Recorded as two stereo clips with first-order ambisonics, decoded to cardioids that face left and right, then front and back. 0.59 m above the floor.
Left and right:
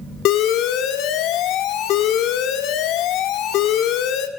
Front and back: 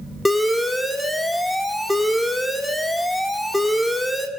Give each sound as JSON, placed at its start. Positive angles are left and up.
{"t": 0.2, "sound": "an alarm", "azimuth_deg": 85, "distance_m": 1.2}